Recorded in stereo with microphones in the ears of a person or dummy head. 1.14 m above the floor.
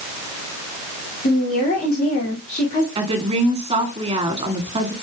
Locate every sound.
1.2 s a woman speaking: 50° left (ahead or behind), 2.5 m
3.0 s a woman speaking: 25° right (ahead or behind), 1.9 m